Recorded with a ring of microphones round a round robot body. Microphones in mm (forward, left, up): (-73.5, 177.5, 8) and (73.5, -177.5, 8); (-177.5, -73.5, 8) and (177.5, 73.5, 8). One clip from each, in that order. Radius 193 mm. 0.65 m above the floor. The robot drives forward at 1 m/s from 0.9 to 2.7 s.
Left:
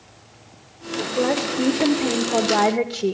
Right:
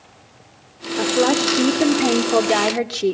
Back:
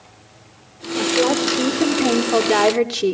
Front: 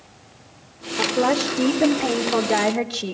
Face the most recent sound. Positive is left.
turn(degrees=-115)